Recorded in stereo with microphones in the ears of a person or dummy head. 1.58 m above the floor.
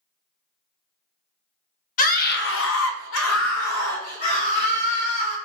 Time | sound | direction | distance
2.0 | a scream | 50° left (ahead or behind) | 0.7 m